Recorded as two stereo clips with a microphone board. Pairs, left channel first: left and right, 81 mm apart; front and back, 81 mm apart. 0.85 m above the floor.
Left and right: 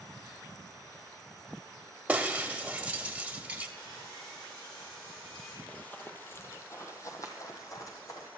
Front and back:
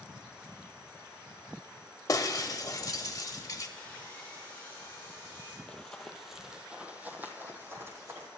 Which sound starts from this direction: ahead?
Breaking glass, at 2.1 s.